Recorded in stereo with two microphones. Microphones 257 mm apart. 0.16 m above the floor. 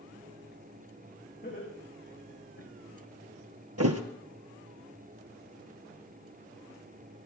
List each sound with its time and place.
1.4 s laughter: 35° left (ahead or behind), 9.5 m; by 2.7 s 40° left (ahead or behind), 8.5 m
3.8 s a thud: 75° right (ahead or behind), 1.7 m